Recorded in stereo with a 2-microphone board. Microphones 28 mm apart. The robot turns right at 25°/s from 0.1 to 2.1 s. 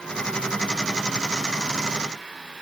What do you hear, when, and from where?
Only background noise.